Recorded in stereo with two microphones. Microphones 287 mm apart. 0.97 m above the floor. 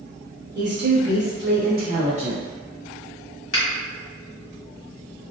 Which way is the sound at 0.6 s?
35° right (ahead or behind).